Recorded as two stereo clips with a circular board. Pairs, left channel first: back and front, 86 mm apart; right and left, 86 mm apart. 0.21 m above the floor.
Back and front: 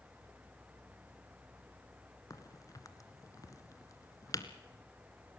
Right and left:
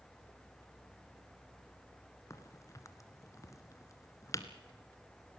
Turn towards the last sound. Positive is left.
turn(degrees=-135)